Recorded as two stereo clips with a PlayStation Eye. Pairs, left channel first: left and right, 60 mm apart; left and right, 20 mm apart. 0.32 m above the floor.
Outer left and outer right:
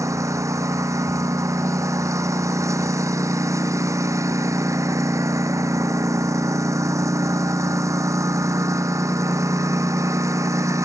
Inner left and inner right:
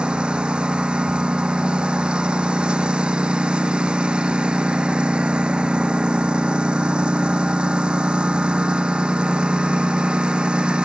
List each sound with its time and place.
0.0 s a lawn mower: 60° right (ahead or behind)